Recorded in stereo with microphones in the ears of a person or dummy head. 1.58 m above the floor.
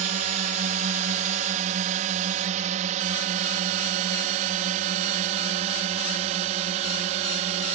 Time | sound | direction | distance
0.0 | a drone | 35° right (ahead or behind) | ?